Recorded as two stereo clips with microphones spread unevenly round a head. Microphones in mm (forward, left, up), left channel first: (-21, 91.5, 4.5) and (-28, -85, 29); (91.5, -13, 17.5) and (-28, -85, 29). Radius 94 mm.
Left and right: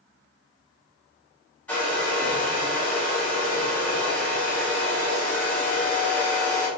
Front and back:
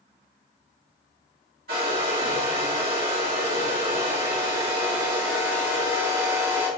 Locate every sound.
1.7 s a hair dryer: 170° left, 2.5 m